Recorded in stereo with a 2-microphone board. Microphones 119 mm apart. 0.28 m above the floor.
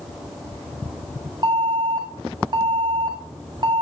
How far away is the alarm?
About 1.7 m.